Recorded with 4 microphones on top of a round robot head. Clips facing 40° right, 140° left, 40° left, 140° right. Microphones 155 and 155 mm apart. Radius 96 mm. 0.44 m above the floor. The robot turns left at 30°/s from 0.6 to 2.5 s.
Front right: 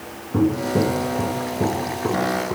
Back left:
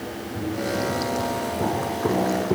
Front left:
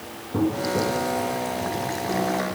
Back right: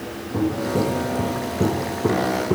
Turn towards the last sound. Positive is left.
turn(degrees=-160)